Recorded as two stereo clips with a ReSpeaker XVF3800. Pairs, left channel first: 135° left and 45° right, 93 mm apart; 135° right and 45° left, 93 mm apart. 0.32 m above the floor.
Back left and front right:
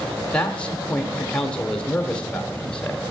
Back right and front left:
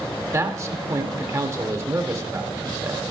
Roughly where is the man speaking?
Ahead left.